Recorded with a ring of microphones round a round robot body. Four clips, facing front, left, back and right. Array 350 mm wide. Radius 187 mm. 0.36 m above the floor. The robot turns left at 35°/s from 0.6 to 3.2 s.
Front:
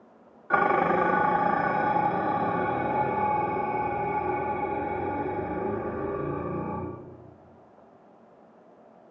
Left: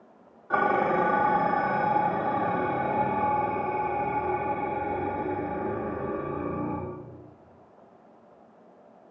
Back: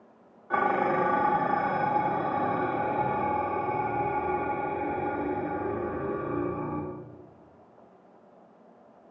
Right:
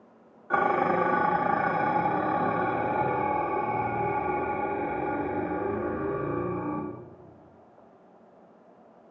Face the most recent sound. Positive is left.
turn(degrees=-105)